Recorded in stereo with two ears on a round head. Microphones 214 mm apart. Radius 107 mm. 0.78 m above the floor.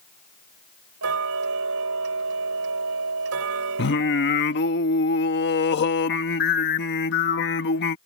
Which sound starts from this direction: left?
Singing, at 3.8 s.